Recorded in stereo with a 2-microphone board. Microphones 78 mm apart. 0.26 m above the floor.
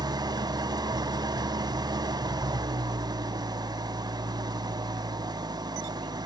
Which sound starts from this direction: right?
An engine running, at 0.0 s.